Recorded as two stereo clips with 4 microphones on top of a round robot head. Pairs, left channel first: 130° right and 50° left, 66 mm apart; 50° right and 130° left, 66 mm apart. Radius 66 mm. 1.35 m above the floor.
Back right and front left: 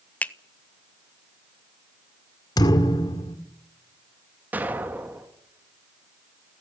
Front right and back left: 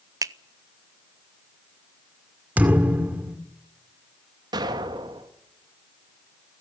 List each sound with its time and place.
0.2 s a finger snap: 160° left, 0.9 m
2.6 s a thud: 160° right, 2 m
4.5 s an explosion: 115° left, 2 m